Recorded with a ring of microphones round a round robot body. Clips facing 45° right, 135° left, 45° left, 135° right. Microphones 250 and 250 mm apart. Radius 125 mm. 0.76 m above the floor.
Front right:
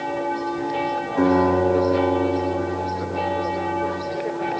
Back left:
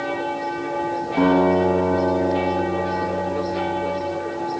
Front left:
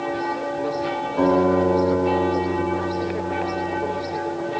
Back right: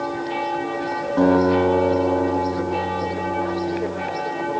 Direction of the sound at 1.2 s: Straight behind.